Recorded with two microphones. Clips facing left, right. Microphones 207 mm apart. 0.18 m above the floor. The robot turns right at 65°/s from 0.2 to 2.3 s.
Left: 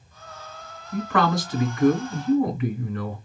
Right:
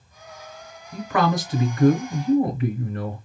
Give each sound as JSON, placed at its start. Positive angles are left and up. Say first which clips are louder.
{"t": 0.9, "sound": "a man speaking", "louder": "even", "azimuth_deg": 180, "distance_m": 1.3}